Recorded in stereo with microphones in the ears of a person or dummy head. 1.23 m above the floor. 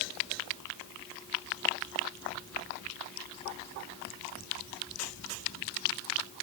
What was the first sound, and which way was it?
Only background noise.